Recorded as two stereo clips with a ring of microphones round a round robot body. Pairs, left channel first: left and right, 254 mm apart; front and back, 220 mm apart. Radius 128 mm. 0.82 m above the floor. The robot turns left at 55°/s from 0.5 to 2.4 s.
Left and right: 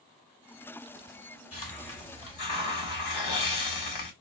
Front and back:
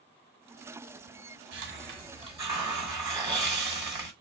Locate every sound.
1.5 s a hiss: 155° left, 1.7 m; by 4.1 s 105° left, 1.7 m